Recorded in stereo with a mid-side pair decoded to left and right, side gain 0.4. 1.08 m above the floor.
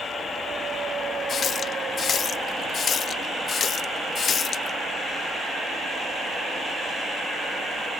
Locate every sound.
1.3 s a running tap: 55° left